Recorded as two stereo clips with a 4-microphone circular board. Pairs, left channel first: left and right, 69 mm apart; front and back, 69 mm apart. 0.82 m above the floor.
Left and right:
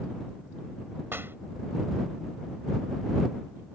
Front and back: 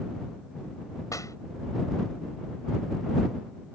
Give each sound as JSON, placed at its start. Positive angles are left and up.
{"t": 1.1, "sound": "a clap", "azimuth_deg": -35}